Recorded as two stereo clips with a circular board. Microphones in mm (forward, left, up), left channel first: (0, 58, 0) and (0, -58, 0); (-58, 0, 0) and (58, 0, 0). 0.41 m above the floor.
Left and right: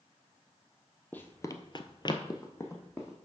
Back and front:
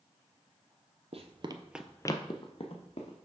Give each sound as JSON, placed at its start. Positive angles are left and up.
{"t": 1.1, "sound": "running footsteps", "azimuth_deg": 15, "distance_m": 0.8}